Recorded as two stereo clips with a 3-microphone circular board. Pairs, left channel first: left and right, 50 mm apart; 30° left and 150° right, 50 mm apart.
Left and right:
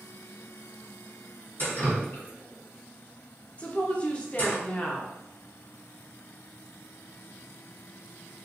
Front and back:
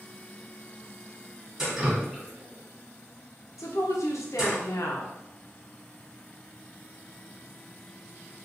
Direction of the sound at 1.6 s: 135° left.